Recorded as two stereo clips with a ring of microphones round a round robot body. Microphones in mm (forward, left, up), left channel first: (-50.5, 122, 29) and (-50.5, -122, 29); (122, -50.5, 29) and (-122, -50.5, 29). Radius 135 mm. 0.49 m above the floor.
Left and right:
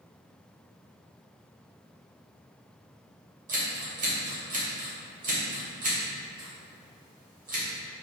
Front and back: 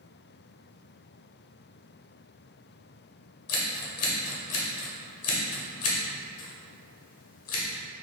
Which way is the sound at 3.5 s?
30° right.